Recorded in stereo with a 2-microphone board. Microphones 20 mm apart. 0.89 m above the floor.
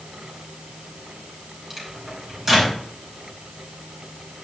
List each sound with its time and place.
1.7 s a microwave: 25° right (ahead or behind), 4.5 m